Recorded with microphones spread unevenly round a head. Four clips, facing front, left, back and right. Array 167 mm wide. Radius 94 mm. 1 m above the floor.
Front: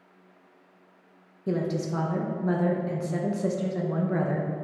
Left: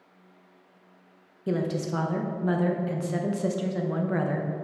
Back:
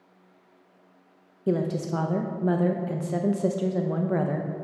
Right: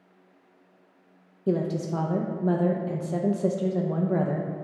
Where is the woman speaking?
135° right, 0.5 m.